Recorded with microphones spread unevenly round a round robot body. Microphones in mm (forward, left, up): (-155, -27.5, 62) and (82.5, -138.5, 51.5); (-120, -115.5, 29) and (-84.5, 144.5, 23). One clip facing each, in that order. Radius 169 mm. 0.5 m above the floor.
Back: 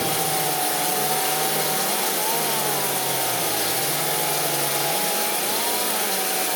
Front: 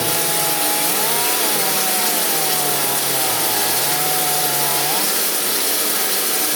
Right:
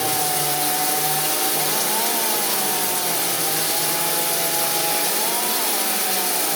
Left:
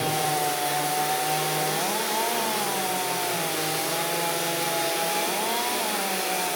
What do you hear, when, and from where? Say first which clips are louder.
0.0 s running water: front 2 dB, right 1 dB; 80° right, 5 m